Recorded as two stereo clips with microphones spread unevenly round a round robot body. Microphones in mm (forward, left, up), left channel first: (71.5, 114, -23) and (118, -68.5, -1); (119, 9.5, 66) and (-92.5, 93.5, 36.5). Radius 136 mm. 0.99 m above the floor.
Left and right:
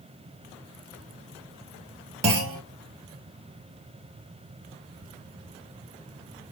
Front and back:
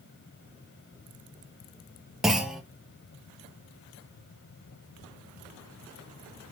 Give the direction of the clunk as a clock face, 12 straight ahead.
4 o'clock.